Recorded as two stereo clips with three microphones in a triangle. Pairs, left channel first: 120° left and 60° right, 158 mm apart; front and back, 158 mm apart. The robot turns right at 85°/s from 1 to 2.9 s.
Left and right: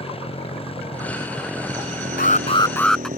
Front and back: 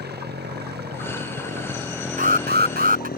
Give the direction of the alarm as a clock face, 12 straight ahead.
7 o'clock.